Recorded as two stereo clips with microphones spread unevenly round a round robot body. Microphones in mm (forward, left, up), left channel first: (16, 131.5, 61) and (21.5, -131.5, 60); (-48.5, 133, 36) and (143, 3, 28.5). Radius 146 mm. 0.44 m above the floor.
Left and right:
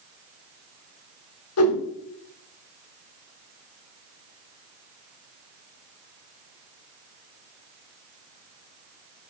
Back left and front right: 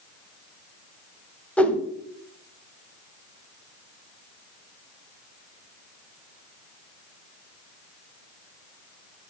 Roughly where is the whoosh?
Ahead left.